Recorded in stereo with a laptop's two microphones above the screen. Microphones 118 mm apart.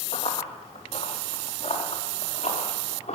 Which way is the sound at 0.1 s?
65° left (ahead or behind).